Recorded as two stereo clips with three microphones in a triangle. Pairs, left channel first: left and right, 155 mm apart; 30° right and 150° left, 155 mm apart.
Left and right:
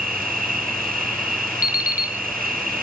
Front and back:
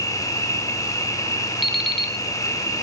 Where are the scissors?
I don't hear scissors.